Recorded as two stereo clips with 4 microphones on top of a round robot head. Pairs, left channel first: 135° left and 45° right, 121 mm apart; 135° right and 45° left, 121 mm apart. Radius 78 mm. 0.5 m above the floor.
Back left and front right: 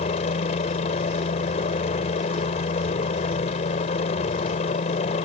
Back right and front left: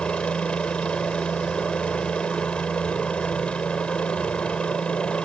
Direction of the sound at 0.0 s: 145° left.